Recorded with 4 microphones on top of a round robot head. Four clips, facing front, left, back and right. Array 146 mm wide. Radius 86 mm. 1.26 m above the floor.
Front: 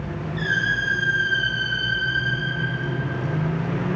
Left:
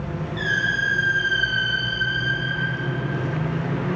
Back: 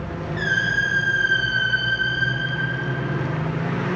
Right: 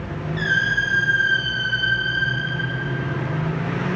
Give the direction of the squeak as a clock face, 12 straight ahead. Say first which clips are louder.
Right 3 dB, back 2 dB; 5 o'clock.